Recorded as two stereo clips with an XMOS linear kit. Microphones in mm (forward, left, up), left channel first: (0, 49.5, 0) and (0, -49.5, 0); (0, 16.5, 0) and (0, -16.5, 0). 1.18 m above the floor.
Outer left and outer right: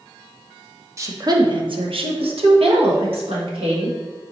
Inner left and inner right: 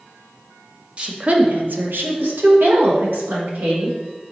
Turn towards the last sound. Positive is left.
turn(degrees=-75)  # may be behind; listen again after turning